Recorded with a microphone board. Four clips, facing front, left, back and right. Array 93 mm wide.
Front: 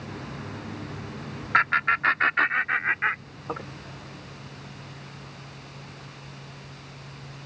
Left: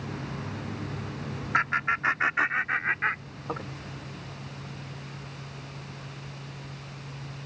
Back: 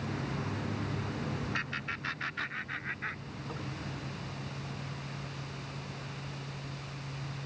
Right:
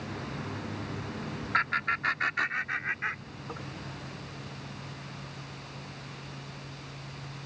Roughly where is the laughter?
Ahead.